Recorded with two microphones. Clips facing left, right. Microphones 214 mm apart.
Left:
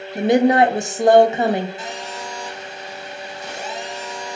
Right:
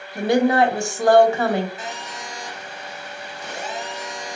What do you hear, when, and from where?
0.1 s a woman speaking: 20° left (ahead or behind), 0.7 m
1.8 s a phone buzzing: 30° right (ahead or behind), 3 m